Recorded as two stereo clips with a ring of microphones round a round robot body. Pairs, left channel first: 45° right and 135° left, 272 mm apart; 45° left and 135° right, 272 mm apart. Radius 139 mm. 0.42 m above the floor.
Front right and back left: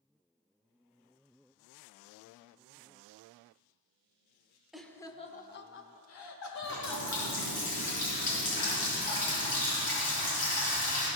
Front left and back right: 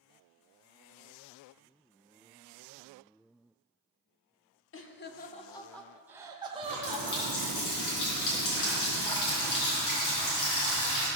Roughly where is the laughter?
Ahead left.